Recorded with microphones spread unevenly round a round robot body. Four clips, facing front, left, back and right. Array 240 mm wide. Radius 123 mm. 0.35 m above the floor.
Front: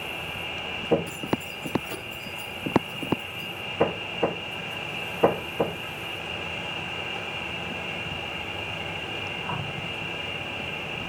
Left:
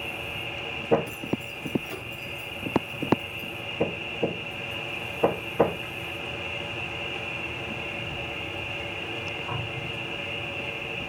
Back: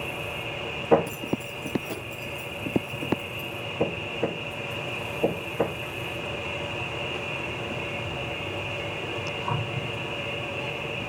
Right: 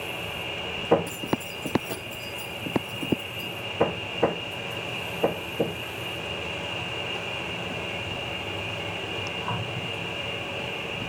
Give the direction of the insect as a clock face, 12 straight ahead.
5 o'clock.